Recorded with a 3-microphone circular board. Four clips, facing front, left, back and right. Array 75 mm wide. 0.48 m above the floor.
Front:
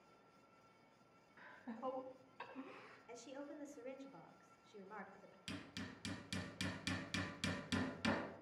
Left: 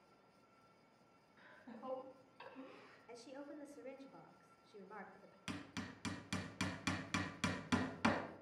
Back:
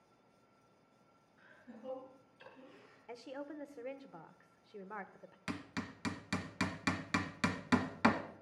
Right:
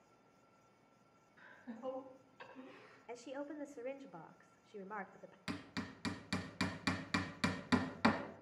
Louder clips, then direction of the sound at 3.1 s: Right 7 dB, back 6 dB; 135° right.